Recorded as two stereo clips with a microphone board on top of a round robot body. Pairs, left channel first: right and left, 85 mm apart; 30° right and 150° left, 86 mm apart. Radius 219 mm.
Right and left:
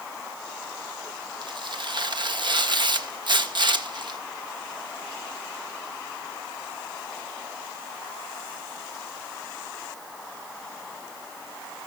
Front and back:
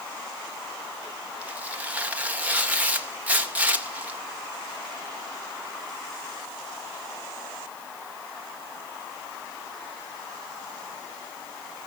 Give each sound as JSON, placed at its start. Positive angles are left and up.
{"t": 1.4, "sound": "tearing paper", "azimuth_deg": 80, "distance_m": 2.5}